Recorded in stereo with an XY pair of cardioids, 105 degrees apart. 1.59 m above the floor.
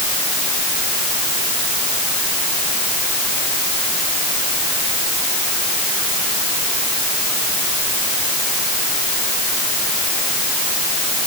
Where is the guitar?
I don't hear a guitar.